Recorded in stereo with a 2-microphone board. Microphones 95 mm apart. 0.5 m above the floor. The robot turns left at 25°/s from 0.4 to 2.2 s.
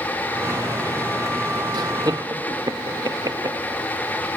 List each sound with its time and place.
1.7 s laughter: 45° right (ahead or behind), 0.9 m